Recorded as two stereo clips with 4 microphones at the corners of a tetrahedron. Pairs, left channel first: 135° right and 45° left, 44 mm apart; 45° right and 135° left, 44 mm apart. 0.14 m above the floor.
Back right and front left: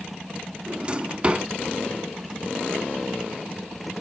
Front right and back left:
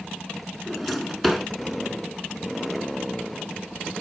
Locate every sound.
0.7 s a drawer: 45° left, 0.8 m